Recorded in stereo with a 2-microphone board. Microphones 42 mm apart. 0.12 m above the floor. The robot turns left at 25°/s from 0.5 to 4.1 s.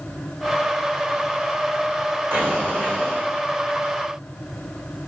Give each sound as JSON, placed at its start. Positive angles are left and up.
{"t": 2.3, "sound": "an explosion", "side_deg": -65, "distance_m": 3.5}